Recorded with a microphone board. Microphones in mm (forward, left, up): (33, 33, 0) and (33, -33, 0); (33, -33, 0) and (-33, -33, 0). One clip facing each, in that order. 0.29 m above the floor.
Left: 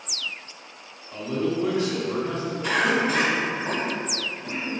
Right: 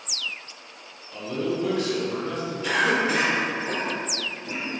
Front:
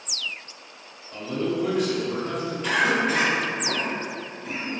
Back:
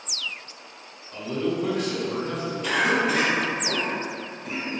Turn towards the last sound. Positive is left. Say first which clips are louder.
# even, even
turn(degrees=105)